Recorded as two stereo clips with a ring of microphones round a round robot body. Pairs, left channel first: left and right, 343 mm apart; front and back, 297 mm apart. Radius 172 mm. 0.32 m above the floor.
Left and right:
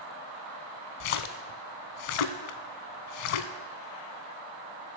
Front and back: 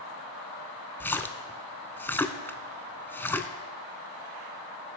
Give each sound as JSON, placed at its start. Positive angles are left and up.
{"t": 1.0, "sound": "a splash", "azimuth_deg": 85, "distance_m": 0.6}